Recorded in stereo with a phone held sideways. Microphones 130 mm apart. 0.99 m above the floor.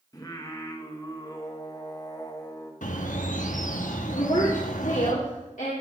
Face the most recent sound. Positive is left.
turn(degrees=75)  # may be behind; listen again after turning